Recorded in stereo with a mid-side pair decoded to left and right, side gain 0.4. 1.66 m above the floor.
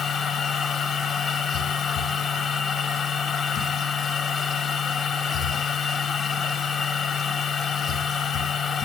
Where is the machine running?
70° left, 1.9 m.